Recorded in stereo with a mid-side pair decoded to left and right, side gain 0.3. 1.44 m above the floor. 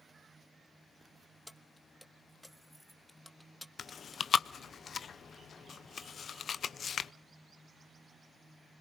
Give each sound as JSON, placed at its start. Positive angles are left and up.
{"t": 1.5, "sound": "keys jangling", "azimuth_deg": 10, "distance_m": 1.3}
{"t": 3.8, "sound": "chewing", "azimuth_deg": 70, "distance_m": 0.6}